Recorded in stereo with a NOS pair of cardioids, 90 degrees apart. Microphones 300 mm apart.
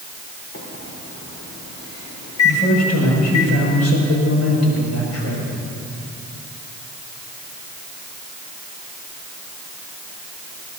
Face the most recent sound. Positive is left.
turn(degrees=60)